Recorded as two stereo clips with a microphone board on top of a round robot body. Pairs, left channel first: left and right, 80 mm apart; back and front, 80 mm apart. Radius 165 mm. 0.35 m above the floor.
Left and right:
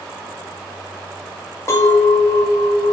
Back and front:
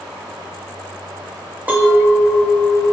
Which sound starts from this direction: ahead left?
A clink, at 1.7 s.